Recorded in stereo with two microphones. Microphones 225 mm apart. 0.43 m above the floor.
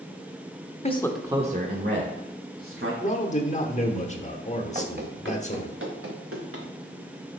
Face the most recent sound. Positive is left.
turn(degrees=-80)